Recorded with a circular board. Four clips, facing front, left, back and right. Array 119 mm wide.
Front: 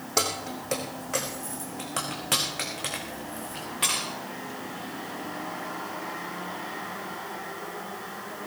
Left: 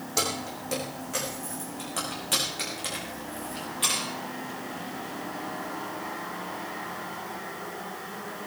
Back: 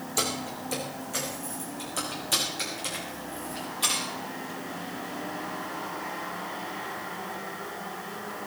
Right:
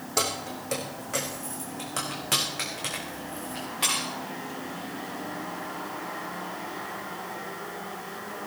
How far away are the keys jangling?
About 4.5 m.